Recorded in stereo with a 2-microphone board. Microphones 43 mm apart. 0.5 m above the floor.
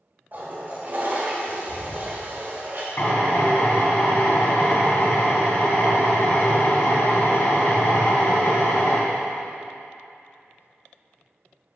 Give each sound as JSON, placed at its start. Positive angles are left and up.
{"t": 0.3, "sound": "a toilet flushing", "side_deg": -45, "distance_m": 1.6}
{"t": 3.0, "sound": "a drill", "side_deg": 65, "distance_m": 2.5}